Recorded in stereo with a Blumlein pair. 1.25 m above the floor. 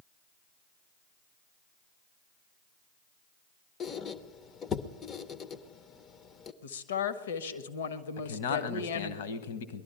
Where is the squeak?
25° left, 0.7 m.